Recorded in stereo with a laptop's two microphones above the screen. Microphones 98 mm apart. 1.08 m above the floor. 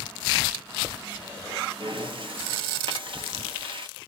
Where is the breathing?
60° right (ahead or behind), 0.8 m.